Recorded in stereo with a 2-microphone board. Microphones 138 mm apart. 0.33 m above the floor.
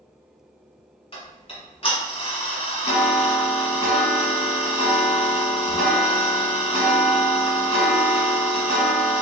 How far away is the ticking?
About 1.2 m.